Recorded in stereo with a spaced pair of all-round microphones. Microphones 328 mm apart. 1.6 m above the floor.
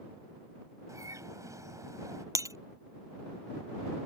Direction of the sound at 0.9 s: 10° right (ahead or behind).